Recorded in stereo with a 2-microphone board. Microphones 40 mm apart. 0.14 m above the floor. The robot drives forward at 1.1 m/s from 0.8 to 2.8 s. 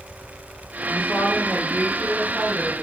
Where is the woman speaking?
15° left (ahead or behind), 1.9 m; by 2.8 s 5° left (ahead or behind), 4 m.